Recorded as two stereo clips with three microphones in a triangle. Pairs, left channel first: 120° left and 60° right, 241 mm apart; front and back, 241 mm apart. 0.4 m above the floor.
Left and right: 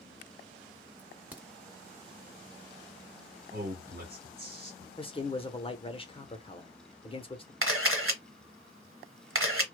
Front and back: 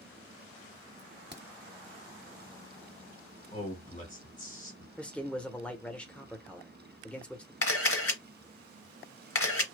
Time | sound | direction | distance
1.0 | a crack | 140° right | 0.8 m
3.5 | a man speaking | 40° right | 1.6 m
5.0 | a man speaking | 80° left | 0.8 m
7.6 | a camera shutter | 25° right | 1.1 m